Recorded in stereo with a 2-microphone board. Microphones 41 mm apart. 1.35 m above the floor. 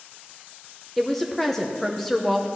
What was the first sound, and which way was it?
A woman speaking, 10° left (ahead or behind).